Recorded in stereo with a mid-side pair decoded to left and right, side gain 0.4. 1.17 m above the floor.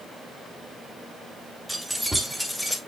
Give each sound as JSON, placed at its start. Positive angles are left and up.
{"t": 1.7, "sound": "keys jangling", "azimuth_deg": -5, "distance_m": 4.0}